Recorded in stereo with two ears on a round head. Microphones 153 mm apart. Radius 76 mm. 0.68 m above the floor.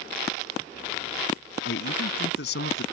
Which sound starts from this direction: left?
A man speaking, at 1.6 s.